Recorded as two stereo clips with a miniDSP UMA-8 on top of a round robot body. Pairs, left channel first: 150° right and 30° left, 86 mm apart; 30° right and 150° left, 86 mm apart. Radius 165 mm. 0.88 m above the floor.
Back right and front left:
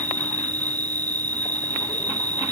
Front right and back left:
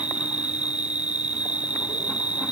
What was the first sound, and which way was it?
An insect, 75° left.